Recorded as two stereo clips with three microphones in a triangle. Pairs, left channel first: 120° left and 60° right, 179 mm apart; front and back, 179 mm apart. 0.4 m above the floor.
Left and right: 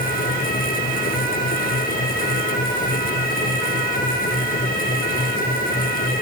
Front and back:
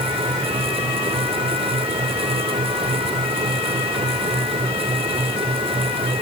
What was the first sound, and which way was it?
Only background noise.